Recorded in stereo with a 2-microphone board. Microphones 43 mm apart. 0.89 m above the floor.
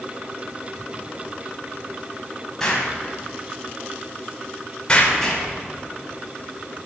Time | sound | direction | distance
2.6 | an explosion | 15° left (ahead or behind) | 4 m
4.9 | an explosion | 25° left (ahead or behind) | 3 m